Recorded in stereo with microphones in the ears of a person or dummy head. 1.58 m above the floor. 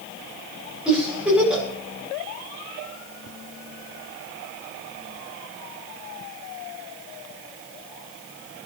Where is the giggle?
5° left (ahead or behind), 6.5 m.